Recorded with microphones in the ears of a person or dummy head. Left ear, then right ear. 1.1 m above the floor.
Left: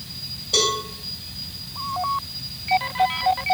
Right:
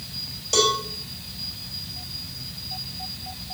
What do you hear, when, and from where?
0.5 s a cowbell: 50° right (ahead or behind), 5 m